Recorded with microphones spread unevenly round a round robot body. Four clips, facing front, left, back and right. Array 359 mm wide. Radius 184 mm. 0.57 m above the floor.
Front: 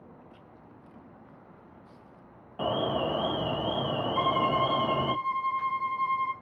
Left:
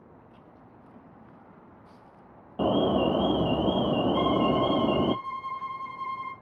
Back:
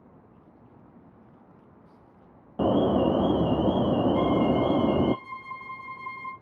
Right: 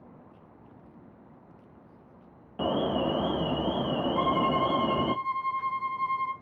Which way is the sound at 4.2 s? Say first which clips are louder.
Right 1 dB, back 3 dB; 150° left.